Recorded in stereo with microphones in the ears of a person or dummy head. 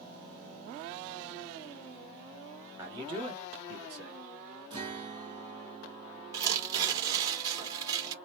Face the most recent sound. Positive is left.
turn(degrees=-15)  # may be behind; listen again after turning